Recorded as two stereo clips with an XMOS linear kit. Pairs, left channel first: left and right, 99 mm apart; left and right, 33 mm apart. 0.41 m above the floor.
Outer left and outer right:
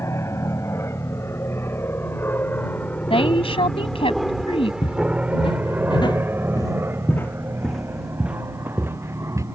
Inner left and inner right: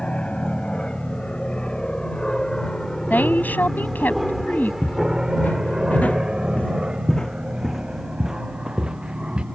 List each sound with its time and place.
0.0 s an aircraft: 30° left (ahead or behind); by 9.6 s 30° right (ahead or behind)
3.1 s a woman speaking: 70° left (ahead or behind)
4.8 s footsteps: 70° left (ahead or behind); by 9.4 s 30° right (ahead or behind)